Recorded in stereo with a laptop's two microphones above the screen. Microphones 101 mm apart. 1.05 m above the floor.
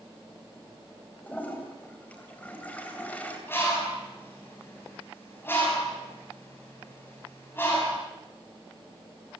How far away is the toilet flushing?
About 2.5 m.